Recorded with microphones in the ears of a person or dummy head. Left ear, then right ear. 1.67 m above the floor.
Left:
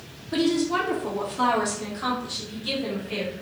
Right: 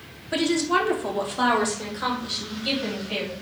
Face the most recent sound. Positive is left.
turn(degrees=-45)  # may be behind; listen again after turning